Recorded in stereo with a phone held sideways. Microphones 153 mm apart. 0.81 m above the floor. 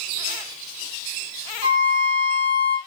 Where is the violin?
30° right (ahead or behind), 1.3 m.